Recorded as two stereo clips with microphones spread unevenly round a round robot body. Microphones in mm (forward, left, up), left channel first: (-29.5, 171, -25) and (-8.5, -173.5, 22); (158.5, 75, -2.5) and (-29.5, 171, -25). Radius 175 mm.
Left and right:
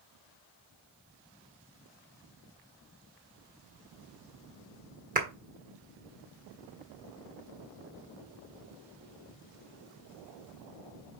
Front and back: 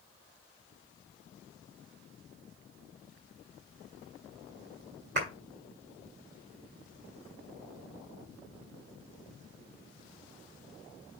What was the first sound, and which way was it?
A clap, 155° right.